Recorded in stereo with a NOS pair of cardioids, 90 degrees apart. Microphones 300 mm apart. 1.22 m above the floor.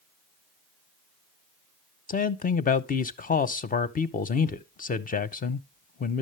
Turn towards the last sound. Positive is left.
turn(degrees=30)